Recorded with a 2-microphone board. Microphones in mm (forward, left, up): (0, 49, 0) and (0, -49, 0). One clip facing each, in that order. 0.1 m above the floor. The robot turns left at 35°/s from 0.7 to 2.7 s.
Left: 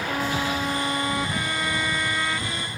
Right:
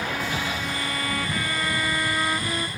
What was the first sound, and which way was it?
A violin, 40° left.